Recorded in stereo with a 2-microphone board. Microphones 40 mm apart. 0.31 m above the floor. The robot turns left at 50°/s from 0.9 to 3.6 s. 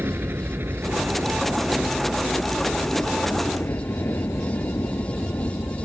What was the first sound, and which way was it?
A helicopter, 55° right (ahead or behind).